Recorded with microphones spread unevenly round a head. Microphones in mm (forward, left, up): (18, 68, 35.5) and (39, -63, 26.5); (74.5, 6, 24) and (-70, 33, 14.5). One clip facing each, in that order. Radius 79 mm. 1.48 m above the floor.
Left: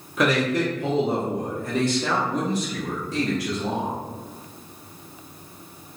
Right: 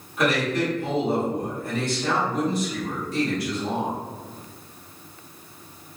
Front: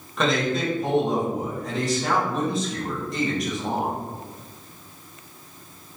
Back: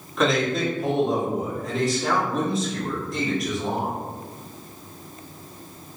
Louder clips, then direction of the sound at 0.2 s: Left 2 dB, back 1 dB; 80° left.